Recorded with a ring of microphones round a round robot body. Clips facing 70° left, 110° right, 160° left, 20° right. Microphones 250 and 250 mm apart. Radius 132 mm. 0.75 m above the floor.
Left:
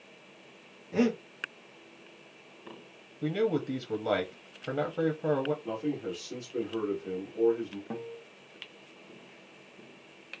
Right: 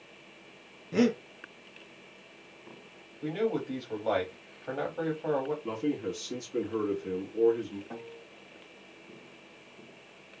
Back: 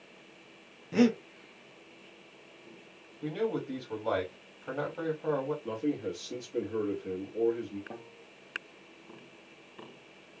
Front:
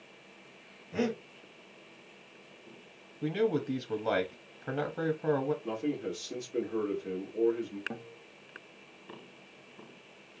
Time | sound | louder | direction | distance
0.9 | breathing | right 1 dB, back 7 dB | 175° right | 0.8 m
3.2 | a man speaking | left 2 dB, front 3 dB | 25° left | 0.8 m
5.6 | a man speaking | right 2 dB, back 1 dB | 95° right | 1.2 m
7.9 | a guitar | left 4 dB, front 3 dB | 40° left | 0.9 m